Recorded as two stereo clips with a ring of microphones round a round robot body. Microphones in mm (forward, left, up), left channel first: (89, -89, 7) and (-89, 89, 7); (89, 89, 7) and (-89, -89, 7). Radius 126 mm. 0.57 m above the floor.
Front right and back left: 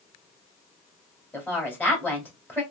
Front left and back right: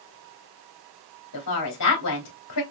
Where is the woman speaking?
35° left, 2 m.